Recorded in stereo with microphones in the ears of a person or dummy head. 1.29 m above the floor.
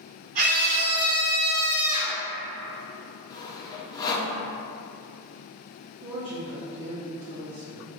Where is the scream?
45° right (ahead or behind), 0.5 m; by 2.2 s 30° right (ahead or behind), 1.1 m.